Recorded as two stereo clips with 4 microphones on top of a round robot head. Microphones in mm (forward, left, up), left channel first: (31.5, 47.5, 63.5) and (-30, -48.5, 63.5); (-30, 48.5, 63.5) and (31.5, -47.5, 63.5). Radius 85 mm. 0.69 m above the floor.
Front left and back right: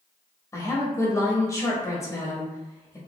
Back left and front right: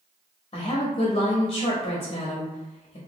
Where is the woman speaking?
110° left, 1.0 m.